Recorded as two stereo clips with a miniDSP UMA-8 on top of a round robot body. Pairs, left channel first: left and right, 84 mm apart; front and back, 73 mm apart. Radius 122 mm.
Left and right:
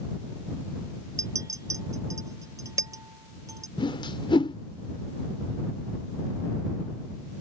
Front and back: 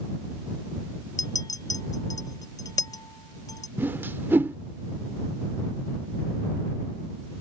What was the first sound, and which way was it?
A clink, 35° right.